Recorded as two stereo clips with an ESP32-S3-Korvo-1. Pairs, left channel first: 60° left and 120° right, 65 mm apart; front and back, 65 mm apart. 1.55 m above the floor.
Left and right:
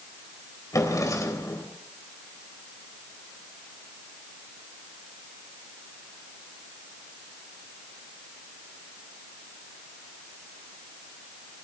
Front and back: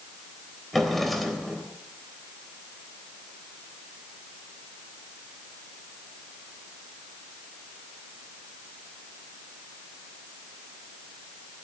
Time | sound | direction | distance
0.7 | a drawer | 90° left | 3 m